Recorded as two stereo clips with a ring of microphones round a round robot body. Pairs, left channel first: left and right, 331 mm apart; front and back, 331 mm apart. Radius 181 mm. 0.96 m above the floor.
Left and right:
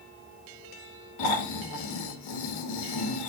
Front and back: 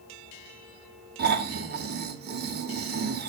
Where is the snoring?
120° left, 1.0 m.